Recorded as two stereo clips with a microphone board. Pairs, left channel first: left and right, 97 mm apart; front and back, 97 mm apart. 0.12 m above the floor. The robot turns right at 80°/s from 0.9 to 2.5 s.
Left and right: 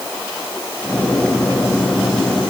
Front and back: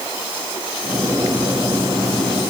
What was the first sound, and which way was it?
Only background noise.